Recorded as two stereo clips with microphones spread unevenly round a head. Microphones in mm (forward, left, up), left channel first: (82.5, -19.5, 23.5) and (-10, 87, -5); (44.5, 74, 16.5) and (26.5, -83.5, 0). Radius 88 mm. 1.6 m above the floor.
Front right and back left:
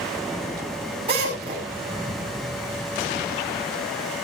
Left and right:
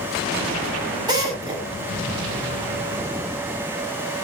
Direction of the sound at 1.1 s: 165° right.